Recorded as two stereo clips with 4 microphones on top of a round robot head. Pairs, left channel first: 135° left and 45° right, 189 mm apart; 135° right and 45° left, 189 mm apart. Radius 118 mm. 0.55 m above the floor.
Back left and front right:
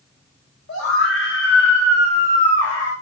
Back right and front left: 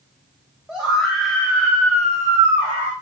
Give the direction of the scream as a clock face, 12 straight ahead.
8 o'clock.